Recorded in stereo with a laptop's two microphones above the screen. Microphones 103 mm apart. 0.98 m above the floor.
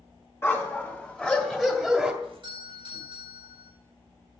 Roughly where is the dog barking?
Left.